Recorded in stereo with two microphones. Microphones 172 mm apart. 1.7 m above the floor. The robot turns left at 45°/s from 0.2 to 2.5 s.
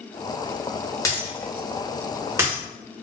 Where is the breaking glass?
20° left (ahead or behind), 1.0 m; by 2.6 s 20° right (ahead or behind), 1.0 m.